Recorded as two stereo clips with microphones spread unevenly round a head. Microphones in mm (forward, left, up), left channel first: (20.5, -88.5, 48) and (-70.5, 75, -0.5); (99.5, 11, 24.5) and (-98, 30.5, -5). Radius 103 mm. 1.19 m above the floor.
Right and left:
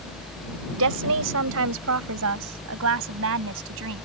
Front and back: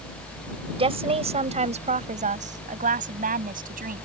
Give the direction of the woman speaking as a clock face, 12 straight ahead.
8 o'clock.